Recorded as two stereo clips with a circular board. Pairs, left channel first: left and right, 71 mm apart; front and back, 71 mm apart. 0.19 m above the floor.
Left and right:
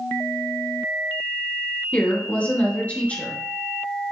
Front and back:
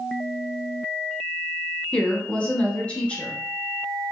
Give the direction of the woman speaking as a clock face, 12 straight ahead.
10 o'clock.